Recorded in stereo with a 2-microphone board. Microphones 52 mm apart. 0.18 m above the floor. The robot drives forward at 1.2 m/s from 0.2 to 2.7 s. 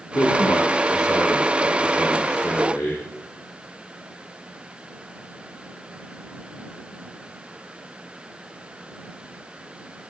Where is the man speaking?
80° left, 7.5 m; by 3.0 s 70° left (ahead or behind), 8 m.